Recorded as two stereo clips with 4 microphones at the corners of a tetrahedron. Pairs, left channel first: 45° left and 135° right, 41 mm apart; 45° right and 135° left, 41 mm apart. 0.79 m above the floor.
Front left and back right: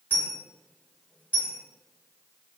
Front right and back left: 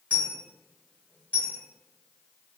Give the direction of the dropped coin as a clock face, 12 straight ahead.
12 o'clock.